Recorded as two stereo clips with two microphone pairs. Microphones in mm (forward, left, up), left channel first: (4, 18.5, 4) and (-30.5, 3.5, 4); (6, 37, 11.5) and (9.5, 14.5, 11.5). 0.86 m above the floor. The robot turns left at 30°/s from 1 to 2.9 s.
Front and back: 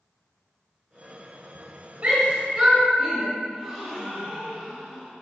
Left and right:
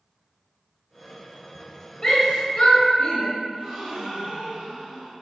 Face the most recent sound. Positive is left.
turn(degrees=-75)